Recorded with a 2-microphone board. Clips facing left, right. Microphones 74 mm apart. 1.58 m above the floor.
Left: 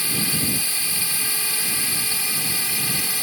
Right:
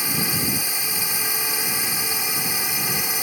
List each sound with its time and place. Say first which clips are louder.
0.0 s a drone: right 1 dB; 20° right (ahead or behind)